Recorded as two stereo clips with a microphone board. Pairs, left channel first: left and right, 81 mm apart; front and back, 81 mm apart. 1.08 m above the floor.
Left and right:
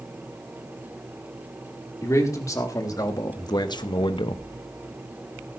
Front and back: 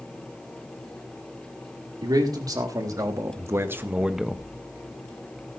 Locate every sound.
2.0 s a man speaking: 145° left, 2.5 m; by 4.4 s 80° left, 0.7 m